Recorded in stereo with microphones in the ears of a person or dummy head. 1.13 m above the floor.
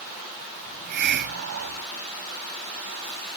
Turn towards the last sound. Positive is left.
turn(degrees=-60)  # may be behind; listen again after turning